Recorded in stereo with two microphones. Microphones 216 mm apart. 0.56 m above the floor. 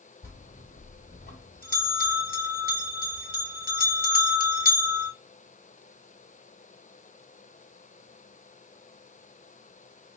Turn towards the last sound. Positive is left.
turn(degrees=45)  # may be behind; listen again after turning